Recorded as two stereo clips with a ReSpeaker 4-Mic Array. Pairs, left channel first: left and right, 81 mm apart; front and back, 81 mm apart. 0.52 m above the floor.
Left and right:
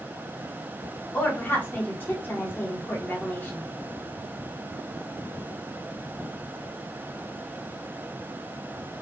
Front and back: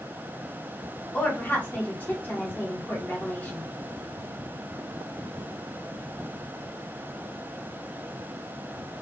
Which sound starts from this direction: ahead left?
A woman speaking, at 1.1 s.